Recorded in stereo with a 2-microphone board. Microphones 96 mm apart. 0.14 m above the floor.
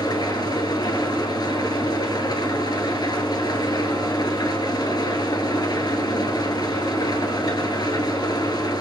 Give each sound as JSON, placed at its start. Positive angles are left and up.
{"t": 0.0, "sound": "an engine running", "side_deg": 45, "distance_m": 1.4}